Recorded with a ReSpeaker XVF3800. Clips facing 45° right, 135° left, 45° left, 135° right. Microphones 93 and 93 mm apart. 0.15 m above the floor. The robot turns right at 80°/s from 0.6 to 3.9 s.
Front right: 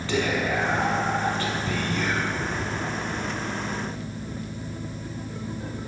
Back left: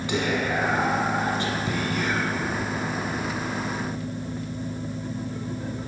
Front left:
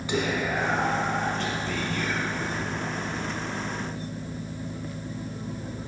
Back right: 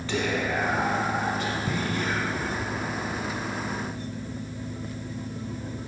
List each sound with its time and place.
0.1 s whispering: 90° left, 1.3 m; by 2.9 s 85° right, 1.3 m